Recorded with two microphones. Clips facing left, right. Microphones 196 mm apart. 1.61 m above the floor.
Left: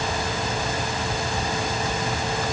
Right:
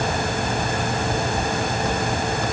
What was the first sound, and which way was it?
Only background noise.